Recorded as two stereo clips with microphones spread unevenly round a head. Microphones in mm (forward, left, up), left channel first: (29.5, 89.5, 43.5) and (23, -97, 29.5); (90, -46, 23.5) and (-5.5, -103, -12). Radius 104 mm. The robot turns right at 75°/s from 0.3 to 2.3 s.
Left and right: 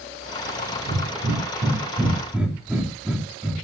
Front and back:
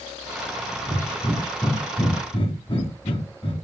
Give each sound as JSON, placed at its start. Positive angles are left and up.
{"t": 0.8, "sound": "breathing", "azimuth_deg": -115, "distance_m": 2.5}